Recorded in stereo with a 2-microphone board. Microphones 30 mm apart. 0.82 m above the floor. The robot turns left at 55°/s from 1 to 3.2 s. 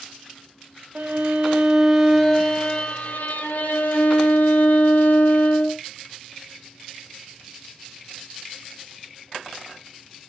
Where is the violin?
125° right, 0.5 m; by 5.8 s 115° left, 0.5 m.